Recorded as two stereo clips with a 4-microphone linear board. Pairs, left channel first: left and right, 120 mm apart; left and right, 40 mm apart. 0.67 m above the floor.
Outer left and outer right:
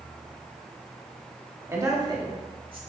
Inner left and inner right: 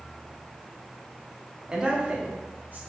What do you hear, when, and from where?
1.7 s a man speaking: 20° right (ahead or behind), 0.9 m; by 2.8 s 45° right (ahead or behind), 1.5 m